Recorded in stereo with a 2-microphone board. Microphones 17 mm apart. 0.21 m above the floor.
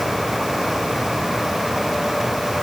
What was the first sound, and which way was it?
Only background noise.